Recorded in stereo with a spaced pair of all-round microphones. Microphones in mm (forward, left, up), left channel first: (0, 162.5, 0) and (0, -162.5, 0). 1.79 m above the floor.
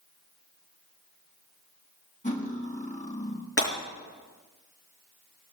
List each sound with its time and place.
2.2 s cutlery clinking: 25° left (ahead or behind), 1.2 m
3.6 s breaking glass: 45° left (ahead or behind), 5.5 m